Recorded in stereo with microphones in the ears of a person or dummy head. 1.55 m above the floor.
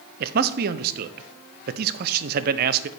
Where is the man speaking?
55° right (ahead or behind), 0.5 m.